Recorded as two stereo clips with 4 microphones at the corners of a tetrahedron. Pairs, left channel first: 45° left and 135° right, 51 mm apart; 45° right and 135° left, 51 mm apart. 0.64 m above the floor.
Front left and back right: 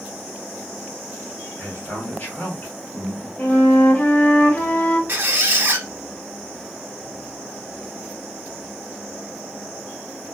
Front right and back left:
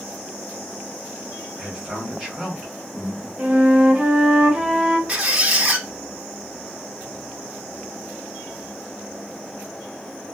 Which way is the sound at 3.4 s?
90° left.